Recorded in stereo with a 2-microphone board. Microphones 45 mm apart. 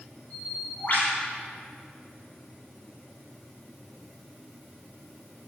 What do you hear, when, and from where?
0.3 s a bird: 45° left (ahead or behind), 4.5 m